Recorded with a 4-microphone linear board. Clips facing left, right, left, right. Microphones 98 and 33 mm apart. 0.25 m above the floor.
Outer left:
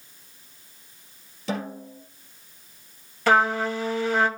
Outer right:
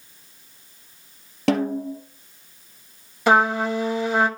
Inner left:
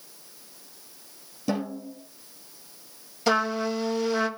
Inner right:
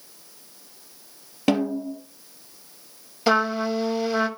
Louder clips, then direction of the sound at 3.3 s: Outer right 2 dB, inner right 3 dB; 15° right (ahead or behind).